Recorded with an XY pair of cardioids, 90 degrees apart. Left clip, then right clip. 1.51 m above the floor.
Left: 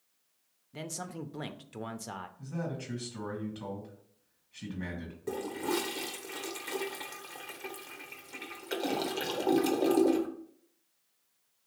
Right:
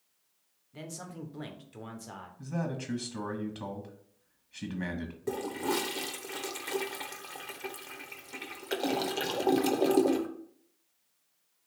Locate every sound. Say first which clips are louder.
0.7 s a man speaking: left 3 dB; 45° left, 0.6 m
2.4 s a man speaking: right 6 dB; 50° right, 1.7 m
5.3 s a toilet flushing: right 1 dB; 20° right, 0.7 m